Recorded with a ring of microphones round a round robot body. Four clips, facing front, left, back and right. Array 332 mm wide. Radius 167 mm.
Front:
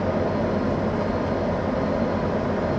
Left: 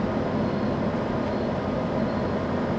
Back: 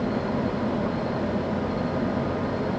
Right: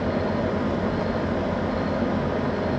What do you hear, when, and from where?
Only background noise.